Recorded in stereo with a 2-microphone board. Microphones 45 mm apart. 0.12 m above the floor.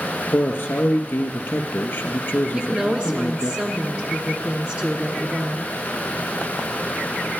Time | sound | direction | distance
0.3 | a man speaking | 55° left (ahead or behind) | 2.5 m
2.5 | a woman speaking | 20° right (ahead or behind) | 1.4 m